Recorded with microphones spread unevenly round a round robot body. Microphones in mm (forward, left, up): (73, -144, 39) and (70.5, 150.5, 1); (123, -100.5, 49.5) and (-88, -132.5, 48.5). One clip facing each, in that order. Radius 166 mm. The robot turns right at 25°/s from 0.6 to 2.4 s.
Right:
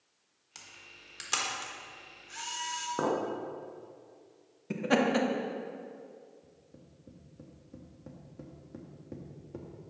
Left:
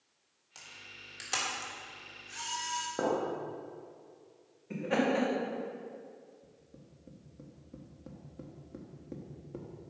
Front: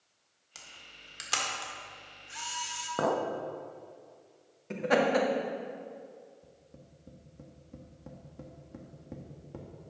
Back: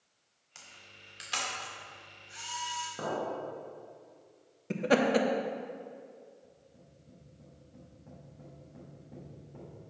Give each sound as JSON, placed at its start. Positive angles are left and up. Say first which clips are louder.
{"t": 0.6, "sound": "a camera shutter", "louder": "left 1 dB, front 1 dB", "azimuth_deg": -30, "distance_m": 1.6}
{"t": 3.0, "sound": "a clink", "louder": "right 1 dB, front 6 dB", "azimuth_deg": -15, "distance_m": 0.7}
{"t": 4.7, "sound": "laughter", "louder": "right 3 dB, even", "azimuth_deg": -120, "distance_m": 1.0}
{"t": 6.4, "sound": "tapping", "louder": "even, front 2 dB", "azimuth_deg": 5, "distance_m": 1.1}